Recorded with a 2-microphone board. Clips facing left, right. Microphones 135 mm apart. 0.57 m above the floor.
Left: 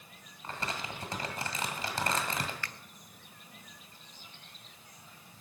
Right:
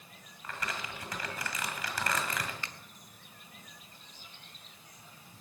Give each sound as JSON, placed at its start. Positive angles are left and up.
{"t": 0.4, "sound": "crumpling", "side_deg": 30, "distance_m": 1.8}
{"t": 2.6, "sound": "a finger snap", "side_deg": -20, "distance_m": 0.5}